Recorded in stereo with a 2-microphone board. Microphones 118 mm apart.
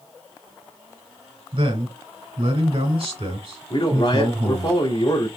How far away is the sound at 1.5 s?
About 1.9 m.